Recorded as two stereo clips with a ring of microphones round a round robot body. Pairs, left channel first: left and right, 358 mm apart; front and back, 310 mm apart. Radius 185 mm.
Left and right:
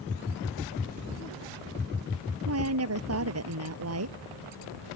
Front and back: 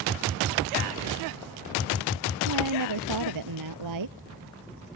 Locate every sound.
2.5 s a woman speaking: 140° right